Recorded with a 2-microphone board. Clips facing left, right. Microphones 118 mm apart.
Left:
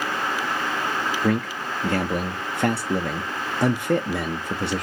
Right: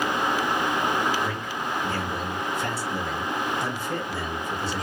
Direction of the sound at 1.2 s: 65° left (ahead or behind).